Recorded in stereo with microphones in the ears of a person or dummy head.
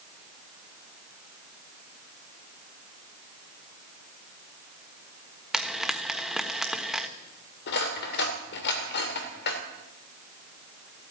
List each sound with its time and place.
5.5 s frying: 5° right (ahead or behind), 1.3 m
7.7 s cutlery clinking: 60° left (ahead or behind), 2.5 m